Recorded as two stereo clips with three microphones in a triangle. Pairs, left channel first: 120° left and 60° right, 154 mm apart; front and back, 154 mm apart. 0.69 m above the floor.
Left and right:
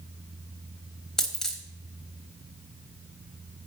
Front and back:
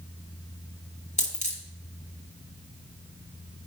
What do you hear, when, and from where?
1.2 s a dropped coin: 35° left, 1.3 m